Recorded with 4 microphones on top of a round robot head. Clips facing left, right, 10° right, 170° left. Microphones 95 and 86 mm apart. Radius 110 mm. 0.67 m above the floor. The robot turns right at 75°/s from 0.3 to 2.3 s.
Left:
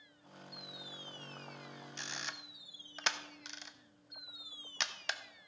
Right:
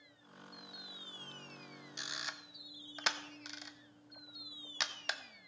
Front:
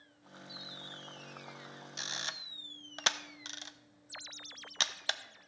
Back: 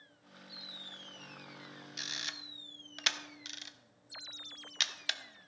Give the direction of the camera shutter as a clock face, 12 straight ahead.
1 o'clock.